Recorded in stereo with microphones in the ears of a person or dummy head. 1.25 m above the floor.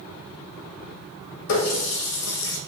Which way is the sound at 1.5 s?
65° left (ahead or behind).